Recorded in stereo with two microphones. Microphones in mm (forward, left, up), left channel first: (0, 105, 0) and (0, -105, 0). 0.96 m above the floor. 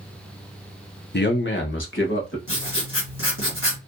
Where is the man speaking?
50° left (ahead or behind), 0.6 m; by 2.4 s 65° left (ahead or behind), 1.1 m.